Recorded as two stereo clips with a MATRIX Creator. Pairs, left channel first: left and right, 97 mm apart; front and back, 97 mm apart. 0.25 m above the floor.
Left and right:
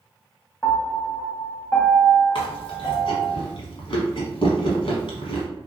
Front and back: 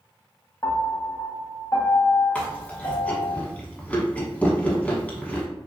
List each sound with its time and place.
0.6 s a piano: 30° left, 0.6 m
2.4 s chewing: 75° left, 0.8 m